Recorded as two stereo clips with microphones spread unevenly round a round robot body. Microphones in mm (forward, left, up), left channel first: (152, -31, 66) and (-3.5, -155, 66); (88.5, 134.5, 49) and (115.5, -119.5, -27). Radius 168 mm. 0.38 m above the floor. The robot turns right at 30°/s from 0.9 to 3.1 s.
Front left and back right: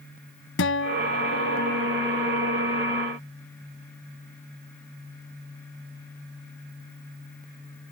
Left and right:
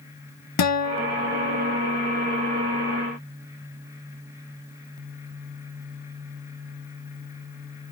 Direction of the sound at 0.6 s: 75° left.